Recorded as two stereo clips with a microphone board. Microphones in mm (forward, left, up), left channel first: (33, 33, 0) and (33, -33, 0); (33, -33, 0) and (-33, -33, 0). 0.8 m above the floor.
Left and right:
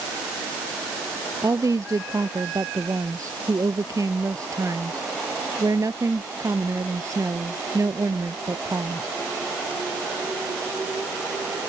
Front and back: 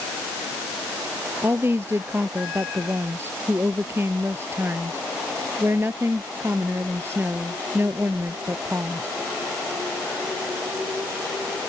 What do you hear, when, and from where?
1.4 s a woman speaking: 125° right